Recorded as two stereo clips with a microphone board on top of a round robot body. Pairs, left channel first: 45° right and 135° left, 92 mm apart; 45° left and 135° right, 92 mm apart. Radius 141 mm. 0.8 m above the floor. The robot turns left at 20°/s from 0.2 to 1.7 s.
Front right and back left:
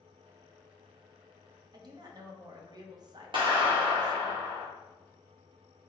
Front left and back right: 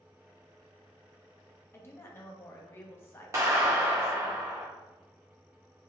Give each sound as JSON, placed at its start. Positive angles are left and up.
{"t": 1.7, "sound": "a woman speaking", "azimuth_deg": 105, "distance_m": 1.1}
{"t": 3.3, "sound": "a clap", "azimuth_deg": 165, "distance_m": 1.6}